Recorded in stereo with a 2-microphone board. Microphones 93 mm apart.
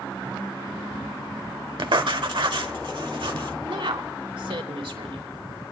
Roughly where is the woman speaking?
Right.